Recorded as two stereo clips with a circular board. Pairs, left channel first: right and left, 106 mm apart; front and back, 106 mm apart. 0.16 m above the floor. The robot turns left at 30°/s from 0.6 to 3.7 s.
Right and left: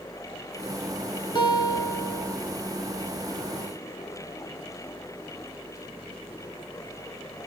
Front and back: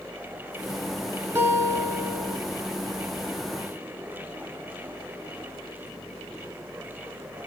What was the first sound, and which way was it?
A guitar, 115° right.